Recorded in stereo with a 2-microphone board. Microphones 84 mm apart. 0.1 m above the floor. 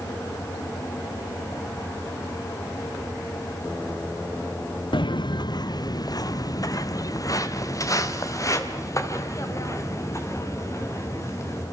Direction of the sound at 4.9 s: 75° left (ahead or behind).